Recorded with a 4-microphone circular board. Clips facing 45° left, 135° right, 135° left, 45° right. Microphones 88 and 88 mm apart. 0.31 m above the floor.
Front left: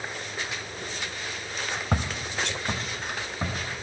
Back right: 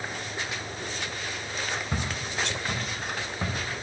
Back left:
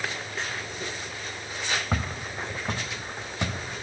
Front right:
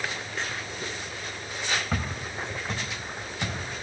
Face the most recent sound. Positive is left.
turn(degrees=140)